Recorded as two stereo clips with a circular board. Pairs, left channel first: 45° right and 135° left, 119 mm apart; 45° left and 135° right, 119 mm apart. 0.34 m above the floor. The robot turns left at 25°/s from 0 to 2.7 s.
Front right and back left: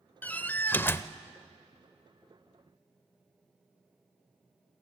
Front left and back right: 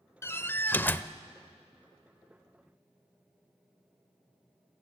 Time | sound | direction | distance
0.2 | a door slam | 15° left | 0.6 m